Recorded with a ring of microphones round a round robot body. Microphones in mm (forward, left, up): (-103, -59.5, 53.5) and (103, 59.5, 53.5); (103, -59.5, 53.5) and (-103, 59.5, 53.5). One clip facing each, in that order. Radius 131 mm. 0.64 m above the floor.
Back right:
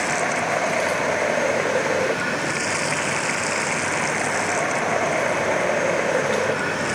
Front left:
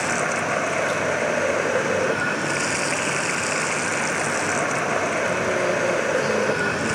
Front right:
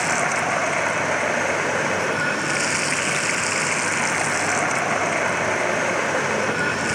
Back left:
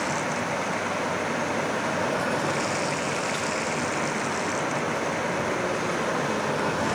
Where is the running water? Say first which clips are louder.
Even, front right 3 dB; 50° right.